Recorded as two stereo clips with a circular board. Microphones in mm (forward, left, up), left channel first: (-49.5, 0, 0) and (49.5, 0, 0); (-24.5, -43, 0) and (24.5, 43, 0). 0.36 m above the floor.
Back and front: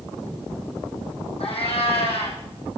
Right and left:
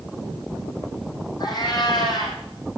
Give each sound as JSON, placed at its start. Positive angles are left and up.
{"t": 1.4, "sound": "a cat meowing", "azimuth_deg": -165, "distance_m": 6.5}